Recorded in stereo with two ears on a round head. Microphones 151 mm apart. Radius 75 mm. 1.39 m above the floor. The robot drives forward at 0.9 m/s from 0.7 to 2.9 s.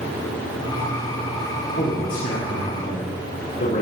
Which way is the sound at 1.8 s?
60° left (ahead or behind).